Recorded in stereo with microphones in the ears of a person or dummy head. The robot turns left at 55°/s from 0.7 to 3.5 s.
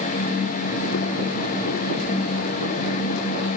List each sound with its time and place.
Only background noise.